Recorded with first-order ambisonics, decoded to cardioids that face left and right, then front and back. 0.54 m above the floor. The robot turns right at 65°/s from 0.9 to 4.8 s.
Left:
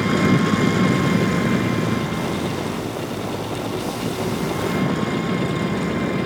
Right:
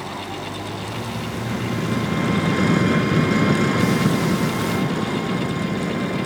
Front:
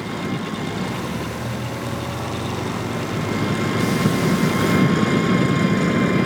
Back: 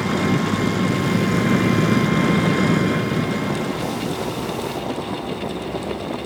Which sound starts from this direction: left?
An engine running, at 0.0 s.